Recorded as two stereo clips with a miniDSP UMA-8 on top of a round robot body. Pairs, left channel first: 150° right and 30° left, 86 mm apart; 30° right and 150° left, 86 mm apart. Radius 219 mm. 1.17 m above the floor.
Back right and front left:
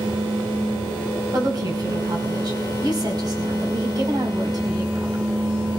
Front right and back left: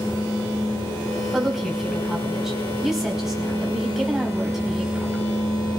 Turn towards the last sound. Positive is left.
turn(degrees=65)